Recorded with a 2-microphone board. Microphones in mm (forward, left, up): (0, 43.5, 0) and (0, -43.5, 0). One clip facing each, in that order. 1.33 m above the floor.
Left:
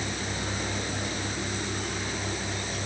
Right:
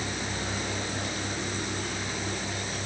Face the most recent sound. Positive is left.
No sound to turn to.